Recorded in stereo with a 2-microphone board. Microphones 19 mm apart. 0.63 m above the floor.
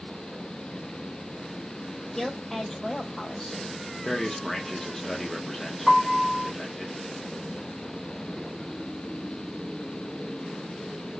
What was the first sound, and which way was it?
A woman speaking, 25° left (ahead or behind).